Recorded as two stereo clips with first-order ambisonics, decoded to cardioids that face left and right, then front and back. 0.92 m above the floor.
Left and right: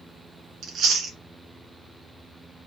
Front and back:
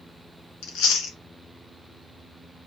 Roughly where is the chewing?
Ahead right.